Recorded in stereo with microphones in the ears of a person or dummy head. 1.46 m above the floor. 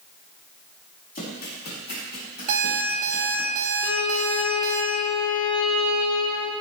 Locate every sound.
1.1 s running footsteps: 50° left (ahead or behind), 4 m
2.5 s an alarm clock: 45° right (ahead or behind), 1.7 m
3.8 s a violin: 25° left (ahead or behind), 0.8 m